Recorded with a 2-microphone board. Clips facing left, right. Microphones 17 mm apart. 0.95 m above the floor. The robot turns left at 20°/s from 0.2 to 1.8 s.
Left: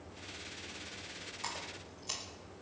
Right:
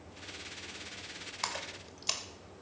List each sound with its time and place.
1.4 s a splash: 70° right (ahead or behind), 2 m; by 2.2 s 60° right (ahead or behind), 2 m